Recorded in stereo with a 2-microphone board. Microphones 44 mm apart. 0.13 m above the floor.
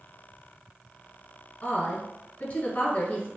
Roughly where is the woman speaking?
Left.